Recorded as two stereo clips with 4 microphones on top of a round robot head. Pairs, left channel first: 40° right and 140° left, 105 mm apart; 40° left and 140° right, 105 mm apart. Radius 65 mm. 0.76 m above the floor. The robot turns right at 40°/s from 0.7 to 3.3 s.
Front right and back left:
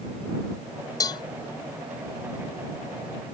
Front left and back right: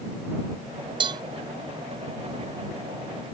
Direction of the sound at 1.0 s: 95° right.